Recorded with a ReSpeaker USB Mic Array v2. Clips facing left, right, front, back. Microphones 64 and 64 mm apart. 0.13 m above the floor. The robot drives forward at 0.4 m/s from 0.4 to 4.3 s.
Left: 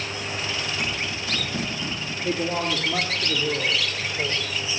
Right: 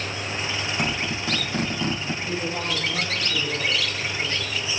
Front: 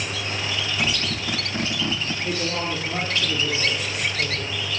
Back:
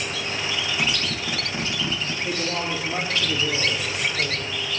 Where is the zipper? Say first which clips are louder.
Right 2 dB, even; 100° right, 5 m; by 2.1 s 105° right, 5.5 m.